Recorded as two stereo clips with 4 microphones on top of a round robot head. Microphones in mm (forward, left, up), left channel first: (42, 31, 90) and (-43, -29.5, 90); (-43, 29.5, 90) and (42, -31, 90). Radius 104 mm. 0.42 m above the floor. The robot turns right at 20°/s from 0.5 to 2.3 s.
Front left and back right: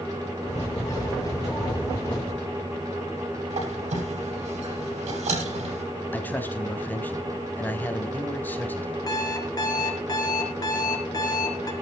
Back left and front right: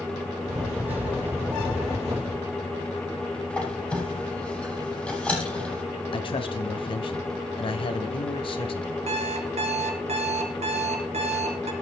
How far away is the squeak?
About 8 m.